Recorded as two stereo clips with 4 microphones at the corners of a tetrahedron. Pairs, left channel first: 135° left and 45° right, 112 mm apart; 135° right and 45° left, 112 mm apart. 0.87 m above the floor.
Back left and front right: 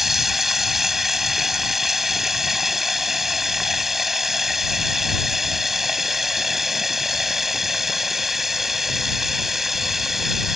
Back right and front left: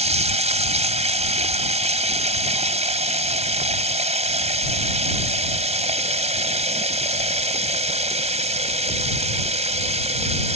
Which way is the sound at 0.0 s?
45° left.